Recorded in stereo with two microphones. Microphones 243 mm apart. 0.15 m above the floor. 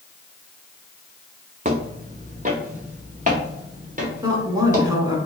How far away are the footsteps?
About 0.7 m.